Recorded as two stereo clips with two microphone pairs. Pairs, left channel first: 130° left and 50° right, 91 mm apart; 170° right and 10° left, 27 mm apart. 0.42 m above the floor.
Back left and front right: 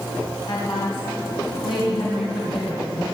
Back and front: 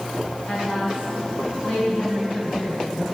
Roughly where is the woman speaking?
Behind left.